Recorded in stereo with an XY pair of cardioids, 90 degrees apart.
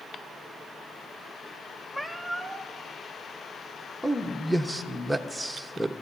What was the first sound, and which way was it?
A cat meowing, 10° left.